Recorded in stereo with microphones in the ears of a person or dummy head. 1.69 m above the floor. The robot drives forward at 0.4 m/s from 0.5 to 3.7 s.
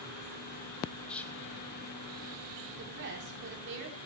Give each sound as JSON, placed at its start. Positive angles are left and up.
{"t": 1.1, "sound": "whispering", "side_deg": 10, "distance_m": 2.5}
{"t": 2.7, "sound": "a woman speaking", "side_deg": -60, "distance_m": 5.0}